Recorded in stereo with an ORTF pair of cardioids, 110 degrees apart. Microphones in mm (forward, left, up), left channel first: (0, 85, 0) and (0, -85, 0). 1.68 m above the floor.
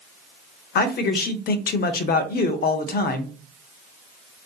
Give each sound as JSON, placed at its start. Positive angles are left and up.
{"t": 0.8, "sound": "a man speaking", "azimuth_deg": 60, "distance_m": 0.6}